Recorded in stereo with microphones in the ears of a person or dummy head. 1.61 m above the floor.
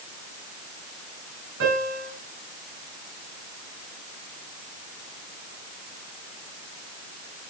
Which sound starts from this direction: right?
A piano, at 1.6 s.